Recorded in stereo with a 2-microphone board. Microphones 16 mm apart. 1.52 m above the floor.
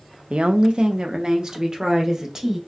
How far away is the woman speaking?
About 0.5 m.